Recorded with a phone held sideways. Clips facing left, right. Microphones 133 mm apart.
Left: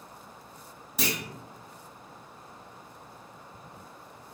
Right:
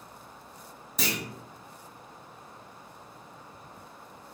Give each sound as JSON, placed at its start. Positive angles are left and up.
{"t": 1.0, "sound": "a clunk", "side_deg": 5, "distance_m": 1.2}